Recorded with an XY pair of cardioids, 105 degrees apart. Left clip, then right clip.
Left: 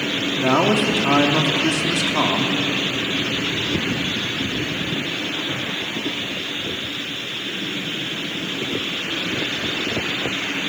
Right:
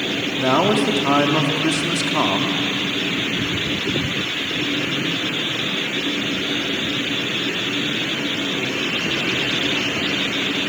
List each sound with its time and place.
0.4 s a man speaking: 5° right, 2.5 m